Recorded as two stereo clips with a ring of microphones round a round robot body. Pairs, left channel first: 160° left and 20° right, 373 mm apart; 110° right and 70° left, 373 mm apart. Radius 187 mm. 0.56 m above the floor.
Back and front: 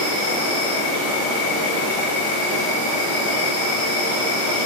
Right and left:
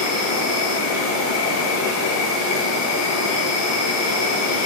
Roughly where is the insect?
Right.